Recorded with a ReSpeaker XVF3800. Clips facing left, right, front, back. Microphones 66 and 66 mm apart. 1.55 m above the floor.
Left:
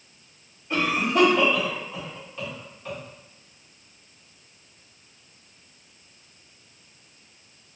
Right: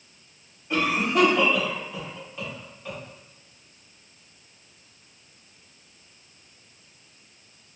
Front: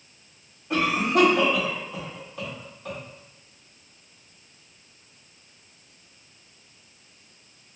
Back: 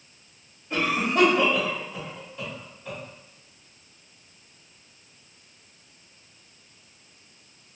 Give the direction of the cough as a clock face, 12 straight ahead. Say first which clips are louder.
Even, front 2 dB; 12 o'clock.